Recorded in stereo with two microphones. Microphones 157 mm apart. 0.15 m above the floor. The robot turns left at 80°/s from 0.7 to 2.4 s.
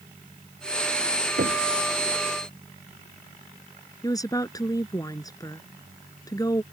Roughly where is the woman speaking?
Left.